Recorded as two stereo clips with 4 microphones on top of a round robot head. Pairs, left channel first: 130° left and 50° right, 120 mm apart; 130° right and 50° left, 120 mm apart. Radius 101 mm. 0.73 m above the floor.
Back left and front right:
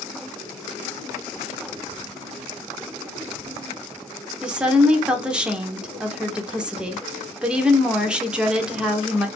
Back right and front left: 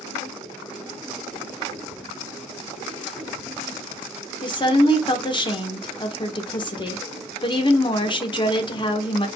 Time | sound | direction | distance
4.4 | a woman speaking | 125° right | 1.2 m